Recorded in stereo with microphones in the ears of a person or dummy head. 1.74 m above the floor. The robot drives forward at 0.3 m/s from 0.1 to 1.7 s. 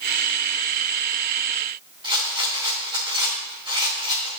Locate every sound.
2.0 s a rattle: 30° right (ahead or behind), 3 m